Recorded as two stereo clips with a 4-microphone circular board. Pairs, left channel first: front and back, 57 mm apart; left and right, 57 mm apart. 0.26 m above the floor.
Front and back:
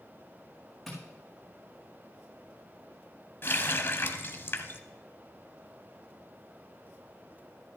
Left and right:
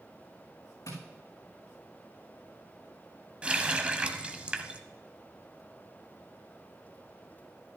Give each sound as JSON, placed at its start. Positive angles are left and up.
{"t": 0.9, "sound": "tapping", "azimuth_deg": 90, "distance_m": 4.5}
{"t": 3.4, "sound": "a running tap", "azimuth_deg": -25, "distance_m": 0.9}